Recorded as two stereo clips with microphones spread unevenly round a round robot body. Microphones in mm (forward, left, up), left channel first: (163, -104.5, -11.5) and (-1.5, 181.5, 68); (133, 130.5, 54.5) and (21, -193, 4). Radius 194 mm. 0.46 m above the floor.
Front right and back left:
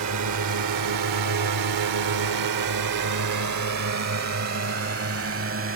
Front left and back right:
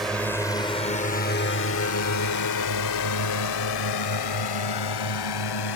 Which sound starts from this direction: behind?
A drone, at 0.0 s.